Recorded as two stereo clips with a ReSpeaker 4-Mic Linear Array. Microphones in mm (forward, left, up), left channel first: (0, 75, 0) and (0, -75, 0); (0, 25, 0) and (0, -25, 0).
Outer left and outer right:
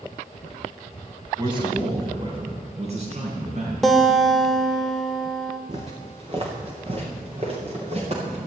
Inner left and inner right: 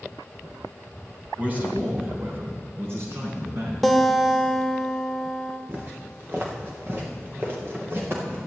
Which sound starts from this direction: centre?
A guitar, at 3.8 s.